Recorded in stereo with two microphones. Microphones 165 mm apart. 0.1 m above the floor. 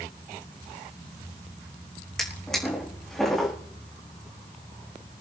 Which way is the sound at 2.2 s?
5° left (ahead or behind).